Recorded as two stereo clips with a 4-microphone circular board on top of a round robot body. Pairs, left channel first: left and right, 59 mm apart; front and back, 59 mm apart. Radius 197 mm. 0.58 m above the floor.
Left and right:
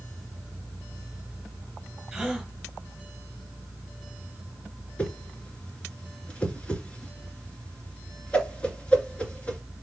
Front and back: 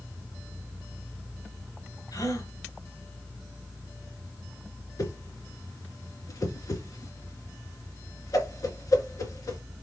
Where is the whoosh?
20° left, 2 m.